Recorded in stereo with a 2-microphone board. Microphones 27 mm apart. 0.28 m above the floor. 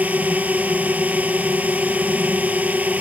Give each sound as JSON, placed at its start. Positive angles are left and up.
{"t": 0.0, "sound": "a drone", "side_deg": -80}